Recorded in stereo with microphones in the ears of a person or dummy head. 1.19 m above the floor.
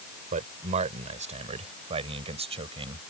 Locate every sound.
0.3 s a man speaking: 35° right (ahead or behind); by 3.0 s 25° right (ahead or behind)